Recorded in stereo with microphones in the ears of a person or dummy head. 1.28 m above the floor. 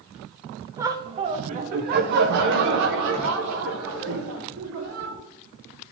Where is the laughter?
10° right (ahead or behind), 0.8 m; by 5.2 s 80° right, 2.5 m.